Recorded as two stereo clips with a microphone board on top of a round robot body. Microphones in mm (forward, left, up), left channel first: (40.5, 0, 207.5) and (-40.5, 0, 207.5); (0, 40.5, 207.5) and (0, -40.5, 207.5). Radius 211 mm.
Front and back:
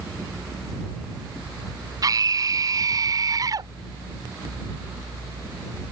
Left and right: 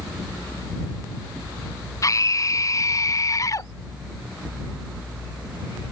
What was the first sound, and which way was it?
A scream, 140° left.